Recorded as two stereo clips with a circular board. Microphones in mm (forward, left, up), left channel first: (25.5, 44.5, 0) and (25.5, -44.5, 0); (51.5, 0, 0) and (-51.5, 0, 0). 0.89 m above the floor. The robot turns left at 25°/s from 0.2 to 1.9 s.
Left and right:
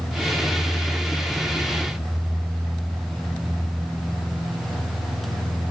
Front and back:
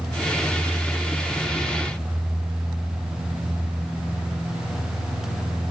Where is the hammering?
I don't hear hammering.